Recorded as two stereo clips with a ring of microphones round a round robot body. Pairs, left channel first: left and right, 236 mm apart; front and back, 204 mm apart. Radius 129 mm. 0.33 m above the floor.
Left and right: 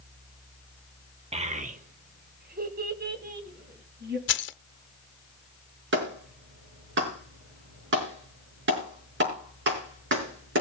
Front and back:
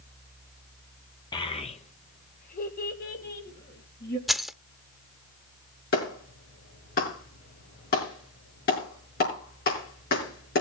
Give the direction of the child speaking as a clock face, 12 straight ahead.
2 o'clock.